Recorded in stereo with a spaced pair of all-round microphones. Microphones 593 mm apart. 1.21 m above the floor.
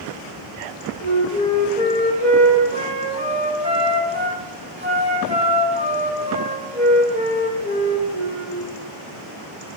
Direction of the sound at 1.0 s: 10° right (ahead or behind).